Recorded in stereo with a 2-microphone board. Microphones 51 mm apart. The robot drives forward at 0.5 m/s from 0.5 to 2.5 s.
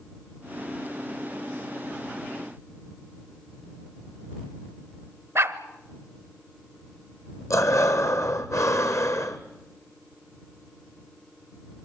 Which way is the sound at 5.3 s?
55° right (ahead or behind).